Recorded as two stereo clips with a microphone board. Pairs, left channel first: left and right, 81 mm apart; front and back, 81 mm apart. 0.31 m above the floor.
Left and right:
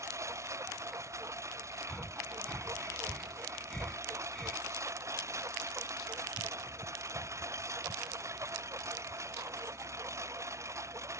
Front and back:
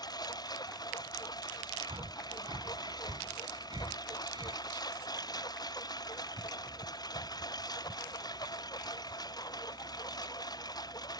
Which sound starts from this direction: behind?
Breathing, at 1.9 s.